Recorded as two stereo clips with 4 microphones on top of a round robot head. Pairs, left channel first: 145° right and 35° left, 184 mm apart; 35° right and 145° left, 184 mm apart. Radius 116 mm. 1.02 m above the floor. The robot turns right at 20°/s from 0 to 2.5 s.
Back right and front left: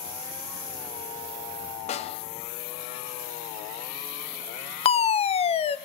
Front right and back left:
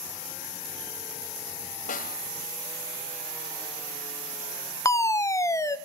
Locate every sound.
1.9 s a snare drum: 85° right, 1.9 m; by 2.2 s 80° right, 1.9 m
4.8 s a fire alarm: 105° right, 1.5 m